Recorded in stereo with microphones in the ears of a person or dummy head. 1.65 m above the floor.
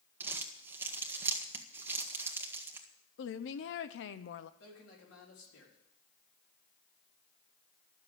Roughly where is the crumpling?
Centre.